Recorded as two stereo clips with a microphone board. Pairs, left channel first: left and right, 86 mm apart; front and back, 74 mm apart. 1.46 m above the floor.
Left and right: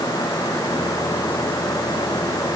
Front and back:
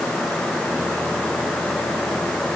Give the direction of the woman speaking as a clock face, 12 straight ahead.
I don't hear a woman speaking.